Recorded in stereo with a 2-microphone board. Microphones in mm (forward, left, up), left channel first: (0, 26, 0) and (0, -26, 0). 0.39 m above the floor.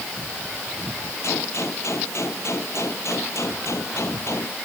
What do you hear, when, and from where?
1.2 s a gunshot: 65° left (ahead or behind)